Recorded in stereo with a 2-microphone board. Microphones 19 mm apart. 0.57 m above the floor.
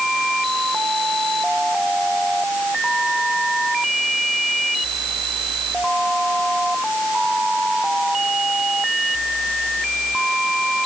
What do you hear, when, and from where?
Only background noise.